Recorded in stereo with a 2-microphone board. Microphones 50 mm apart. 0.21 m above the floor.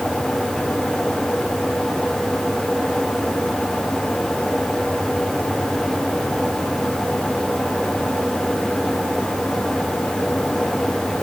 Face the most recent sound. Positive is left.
No sound to turn to.